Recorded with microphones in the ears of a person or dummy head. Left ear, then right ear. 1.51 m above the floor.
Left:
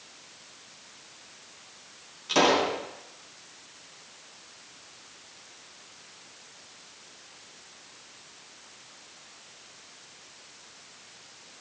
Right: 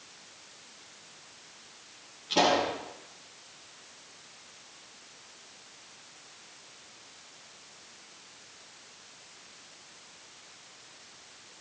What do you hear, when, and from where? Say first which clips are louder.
2.3 s a pop: left 3 dB; 65° left (ahead or behind), 6.5 m